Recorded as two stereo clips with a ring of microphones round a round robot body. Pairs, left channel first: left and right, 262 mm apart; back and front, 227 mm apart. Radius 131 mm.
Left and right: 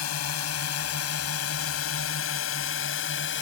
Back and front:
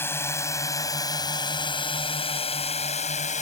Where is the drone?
100° left; by 3.4 s 130° left.